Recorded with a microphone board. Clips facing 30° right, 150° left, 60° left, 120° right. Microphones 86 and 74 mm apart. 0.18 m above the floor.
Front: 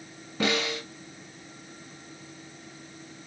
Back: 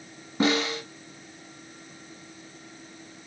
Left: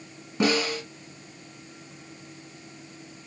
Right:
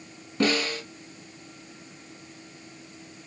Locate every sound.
0.4 s a snare drum: 115° left, 1.5 m